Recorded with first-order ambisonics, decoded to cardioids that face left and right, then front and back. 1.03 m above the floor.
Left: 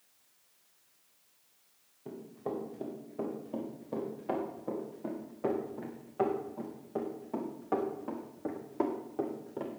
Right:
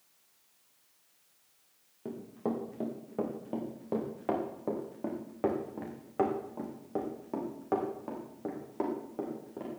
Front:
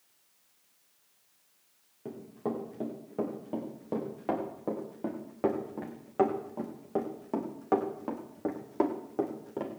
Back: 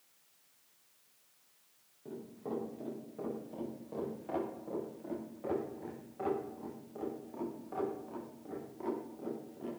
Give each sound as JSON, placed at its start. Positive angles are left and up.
{"t": 2.0, "sound": "running footsteps", "azimuth_deg": -55, "distance_m": 6.0}